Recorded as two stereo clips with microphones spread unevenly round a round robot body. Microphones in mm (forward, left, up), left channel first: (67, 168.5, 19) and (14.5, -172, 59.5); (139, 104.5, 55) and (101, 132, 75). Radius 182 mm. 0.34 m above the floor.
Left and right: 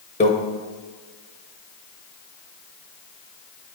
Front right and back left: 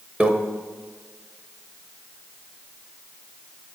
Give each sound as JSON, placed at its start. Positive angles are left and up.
{"t": 0.2, "sound": "a microwave", "azimuth_deg": 50, "distance_m": 0.9}